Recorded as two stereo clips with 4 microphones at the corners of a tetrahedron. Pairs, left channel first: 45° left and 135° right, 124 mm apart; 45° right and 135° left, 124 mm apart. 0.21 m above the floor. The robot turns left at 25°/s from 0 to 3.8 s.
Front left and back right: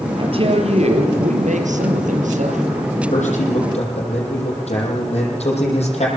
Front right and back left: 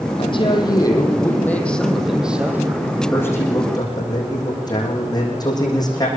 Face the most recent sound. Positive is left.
turn(degrees=10)